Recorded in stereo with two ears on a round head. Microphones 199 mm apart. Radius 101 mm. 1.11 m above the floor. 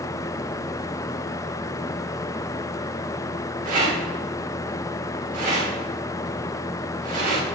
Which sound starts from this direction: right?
A rattle, at 3.6 s.